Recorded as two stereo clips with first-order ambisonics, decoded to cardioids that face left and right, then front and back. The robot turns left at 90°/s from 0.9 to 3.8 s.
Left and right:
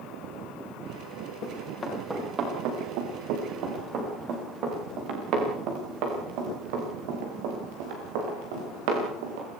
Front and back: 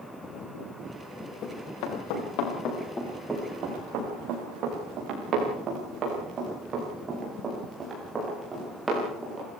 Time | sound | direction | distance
1.4 | running footsteps | 55° left | 8 m